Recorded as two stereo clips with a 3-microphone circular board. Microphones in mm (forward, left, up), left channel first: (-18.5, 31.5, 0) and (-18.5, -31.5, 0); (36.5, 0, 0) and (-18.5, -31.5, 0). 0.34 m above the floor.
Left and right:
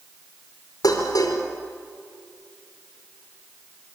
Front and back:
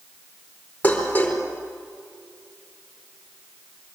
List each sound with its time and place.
0.8 s dishes clattering: 100° left, 4.5 m